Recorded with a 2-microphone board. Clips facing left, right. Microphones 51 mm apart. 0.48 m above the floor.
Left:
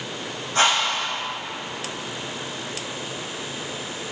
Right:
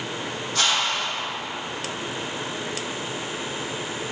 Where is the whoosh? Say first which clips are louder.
Left 4 dB; 30° left (ahead or behind), 5.5 m.